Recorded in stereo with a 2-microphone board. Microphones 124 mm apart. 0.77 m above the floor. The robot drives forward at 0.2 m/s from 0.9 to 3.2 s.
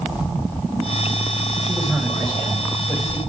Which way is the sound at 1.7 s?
15° left (ahead or behind).